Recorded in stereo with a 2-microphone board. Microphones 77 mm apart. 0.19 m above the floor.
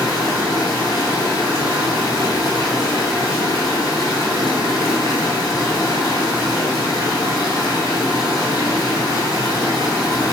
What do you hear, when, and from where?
0.0 s running water: 60° left (ahead or behind), 0.9 m